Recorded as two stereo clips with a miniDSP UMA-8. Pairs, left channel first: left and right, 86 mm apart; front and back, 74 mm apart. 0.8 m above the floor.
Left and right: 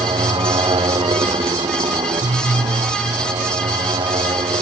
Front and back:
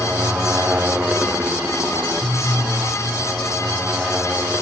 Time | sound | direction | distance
0.0 | a motorcycle | 110° right | ?